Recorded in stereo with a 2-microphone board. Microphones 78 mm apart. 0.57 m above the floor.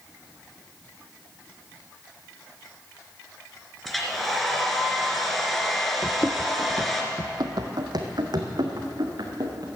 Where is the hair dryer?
Centre (ahead or behind), 2.5 m.